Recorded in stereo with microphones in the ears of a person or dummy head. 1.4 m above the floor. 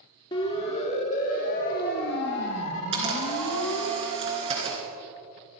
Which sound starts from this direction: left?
A siren, at 0.3 s.